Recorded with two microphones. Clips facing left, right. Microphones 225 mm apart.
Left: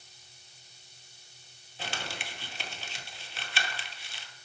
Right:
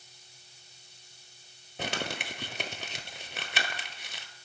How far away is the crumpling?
About 0.5 m.